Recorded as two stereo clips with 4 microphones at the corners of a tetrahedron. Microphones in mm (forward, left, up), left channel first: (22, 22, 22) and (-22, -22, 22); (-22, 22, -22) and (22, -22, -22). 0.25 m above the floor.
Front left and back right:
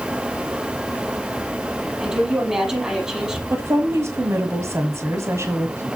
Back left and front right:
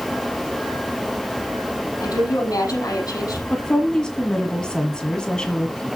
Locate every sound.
2.0 s a woman speaking: 145° left, 6.5 m
3.5 s a woman speaking: 150° right, 1.5 m